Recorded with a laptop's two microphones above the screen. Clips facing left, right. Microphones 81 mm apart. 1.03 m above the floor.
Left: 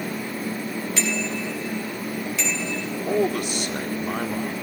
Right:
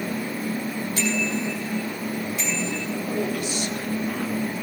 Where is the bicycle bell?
85° left, 6.5 m.